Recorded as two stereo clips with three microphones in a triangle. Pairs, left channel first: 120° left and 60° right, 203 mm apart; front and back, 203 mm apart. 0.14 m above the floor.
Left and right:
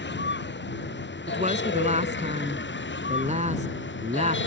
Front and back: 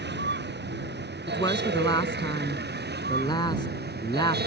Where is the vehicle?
150° left; by 4.5 s 145° left.